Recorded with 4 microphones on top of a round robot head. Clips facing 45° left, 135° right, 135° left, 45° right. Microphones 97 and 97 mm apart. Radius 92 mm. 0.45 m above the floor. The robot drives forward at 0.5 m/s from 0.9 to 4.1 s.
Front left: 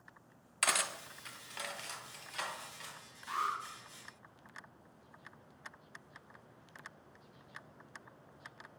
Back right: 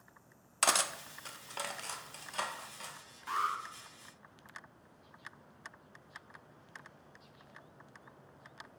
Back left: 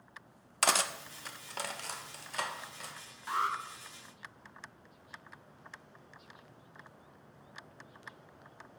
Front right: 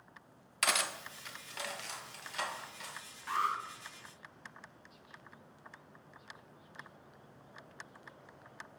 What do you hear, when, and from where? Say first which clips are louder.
0.6 s cutlery clinking: back right 4 dB, back left 4 dB; 175° left, 0.5 m; by 2.9 s straight behind, 1.5 m
3.3 s an alarm: back right 2 dB, back left 1 dB; 160° right, 1.3 m